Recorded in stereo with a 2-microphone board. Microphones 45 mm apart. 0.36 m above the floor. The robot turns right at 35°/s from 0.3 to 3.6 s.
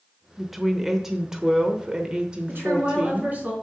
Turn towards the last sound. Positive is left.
turn(degrees=-25)